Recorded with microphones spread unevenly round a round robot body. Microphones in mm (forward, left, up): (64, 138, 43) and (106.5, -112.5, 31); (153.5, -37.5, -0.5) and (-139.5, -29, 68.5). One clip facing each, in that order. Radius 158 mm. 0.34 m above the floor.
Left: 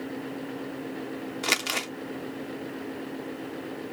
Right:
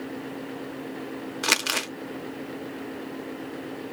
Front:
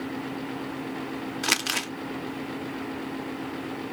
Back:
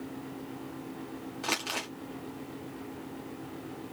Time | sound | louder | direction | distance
1.4 | crumpling | right 1 dB, front 5 dB | 10° right | 0.6 m